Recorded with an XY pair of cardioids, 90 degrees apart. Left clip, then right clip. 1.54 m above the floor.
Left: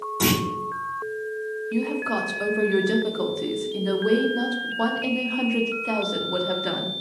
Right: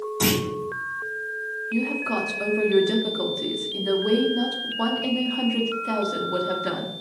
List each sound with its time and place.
0.2 s a clunk: 10° left, 1.3 m
1.7 s a woman speaking: 10° left, 0.7 m